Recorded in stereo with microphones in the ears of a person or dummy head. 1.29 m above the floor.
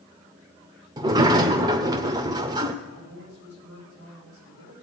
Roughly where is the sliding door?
Right.